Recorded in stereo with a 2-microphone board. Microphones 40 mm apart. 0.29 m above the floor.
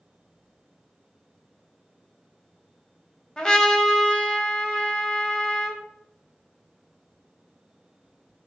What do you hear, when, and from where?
3.4 s a trumpet: 20° left (ahead or behind), 0.5 m